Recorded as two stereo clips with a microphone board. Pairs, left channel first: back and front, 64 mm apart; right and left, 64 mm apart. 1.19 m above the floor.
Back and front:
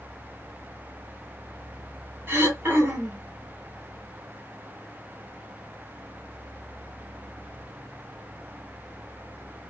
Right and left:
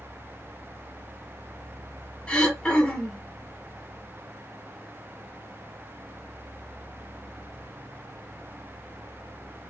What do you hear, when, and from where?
2.3 s throat clearing: 30° right, 0.9 m